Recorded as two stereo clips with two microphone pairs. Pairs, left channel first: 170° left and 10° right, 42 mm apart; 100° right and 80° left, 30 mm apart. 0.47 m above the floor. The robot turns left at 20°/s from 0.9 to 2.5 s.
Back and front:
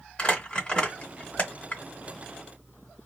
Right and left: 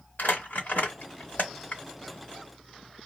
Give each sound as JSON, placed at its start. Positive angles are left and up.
{"t": 0.2, "sound": "crumpling", "azimuth_deg": -120, "distance_m": 1.4}